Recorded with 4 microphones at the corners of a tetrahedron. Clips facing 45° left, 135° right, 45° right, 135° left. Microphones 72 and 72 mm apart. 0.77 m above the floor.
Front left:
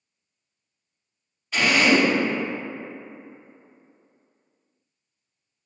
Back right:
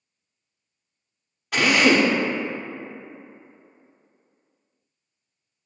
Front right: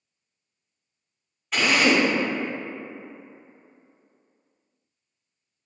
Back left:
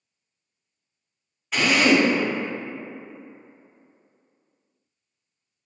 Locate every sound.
1.5 s a drill: 135° right, 0.7 m